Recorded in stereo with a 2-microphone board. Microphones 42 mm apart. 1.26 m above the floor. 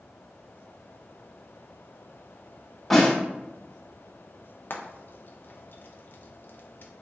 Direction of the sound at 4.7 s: 55° left (ahead or behind).